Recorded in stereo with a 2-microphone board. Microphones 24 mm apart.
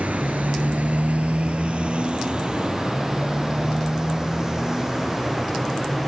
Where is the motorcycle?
80° right; by 6.1 s 15° right (ahead or behind).